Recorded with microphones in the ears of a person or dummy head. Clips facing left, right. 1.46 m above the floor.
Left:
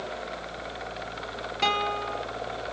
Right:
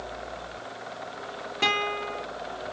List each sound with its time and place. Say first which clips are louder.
1.6 s a guitar: left 1 dB; 10° right (ahead or behind), 0.7 m